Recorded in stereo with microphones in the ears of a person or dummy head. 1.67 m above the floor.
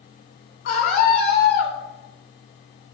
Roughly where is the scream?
Left.